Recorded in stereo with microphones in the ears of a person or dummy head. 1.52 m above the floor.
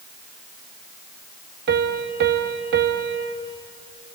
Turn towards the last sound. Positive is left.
turn(degrees=-50)  # may be behind; listen again after turning